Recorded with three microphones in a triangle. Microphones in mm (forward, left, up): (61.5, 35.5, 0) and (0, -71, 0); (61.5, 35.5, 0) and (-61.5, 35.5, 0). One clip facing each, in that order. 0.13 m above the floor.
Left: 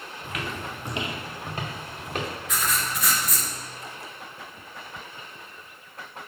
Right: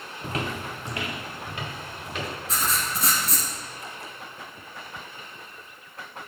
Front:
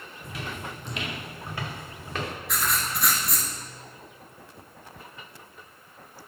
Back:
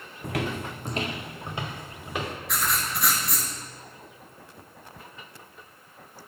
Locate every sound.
0.2 s footsteps: 160° right, 0.6 m; by 2.3 s 105° left, 2 m
2.5 s writing: 90° right, 1.2 m